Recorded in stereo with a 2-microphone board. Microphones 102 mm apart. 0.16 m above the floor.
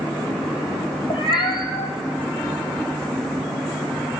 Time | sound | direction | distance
1.1 | a cat meowing | 55° left (ahead or behind) | 1.6 m